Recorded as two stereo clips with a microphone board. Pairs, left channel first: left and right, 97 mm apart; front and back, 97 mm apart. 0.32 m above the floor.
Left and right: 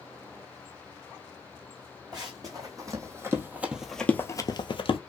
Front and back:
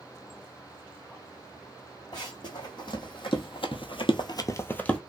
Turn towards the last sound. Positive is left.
turn(degrees=80)